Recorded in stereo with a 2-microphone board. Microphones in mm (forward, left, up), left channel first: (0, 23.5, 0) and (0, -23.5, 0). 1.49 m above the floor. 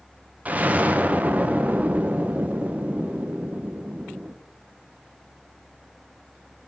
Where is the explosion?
30° right (ahead or behind), 0.6 m.